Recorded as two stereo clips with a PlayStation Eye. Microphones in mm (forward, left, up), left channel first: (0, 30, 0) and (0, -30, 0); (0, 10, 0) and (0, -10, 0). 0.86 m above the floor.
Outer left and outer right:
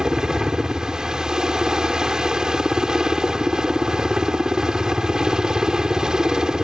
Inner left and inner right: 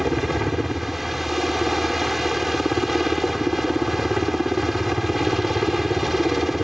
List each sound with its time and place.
0.0 s a helicopter: 10° right (ahead or behind)